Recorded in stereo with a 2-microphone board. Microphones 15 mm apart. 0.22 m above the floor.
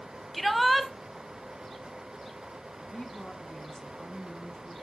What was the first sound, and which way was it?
A shout, centre (ahead or behind).